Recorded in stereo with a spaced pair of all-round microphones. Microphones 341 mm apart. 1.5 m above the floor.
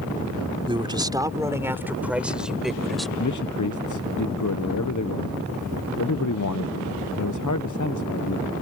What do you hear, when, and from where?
0.7 s a man speaking: 15° right (ahead or behind); by 3.1 s centre (ahead or behind)
3.2 s a man speaking: 60° left (ahead or behind)